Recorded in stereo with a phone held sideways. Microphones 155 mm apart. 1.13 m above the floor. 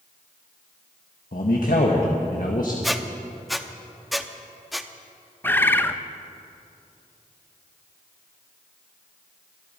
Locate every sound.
1.3 s a man speaking: 70° left (ahead or behind), 1.3 m
2.8 s a squeak: centre (ahead or behind), 0.6 m
5.4 s a bird: 15° left (ahead or behind), 0.5 m